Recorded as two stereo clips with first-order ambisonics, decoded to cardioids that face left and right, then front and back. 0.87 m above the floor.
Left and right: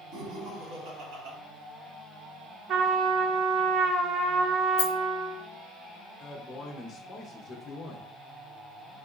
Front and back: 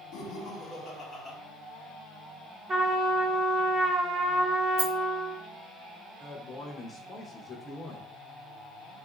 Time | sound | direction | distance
0.1 | laughter | 45° right | 1.3 m
2.7 | a trumpet | 130° right | 0.6 m
4.8 | a rattle | 120° left | 0.6 m
6.2 | a man speaking | 60° left | 0.6 m